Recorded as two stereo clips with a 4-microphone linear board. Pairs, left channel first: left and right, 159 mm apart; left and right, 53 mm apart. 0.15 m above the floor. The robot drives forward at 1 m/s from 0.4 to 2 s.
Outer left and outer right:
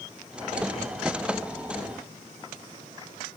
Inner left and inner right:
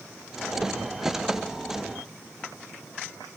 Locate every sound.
Only background noise.